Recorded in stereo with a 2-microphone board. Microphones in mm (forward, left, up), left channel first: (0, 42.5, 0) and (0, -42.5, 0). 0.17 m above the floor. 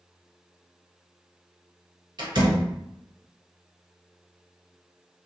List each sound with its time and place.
2.2 s a door slam: 60° right (ahead or behind), 1.3 m